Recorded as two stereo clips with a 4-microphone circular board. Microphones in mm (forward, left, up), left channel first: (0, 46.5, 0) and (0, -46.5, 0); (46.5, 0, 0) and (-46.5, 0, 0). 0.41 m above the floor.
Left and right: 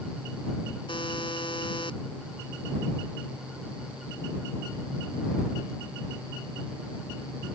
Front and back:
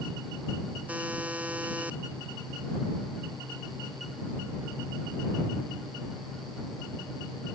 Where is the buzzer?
105° left.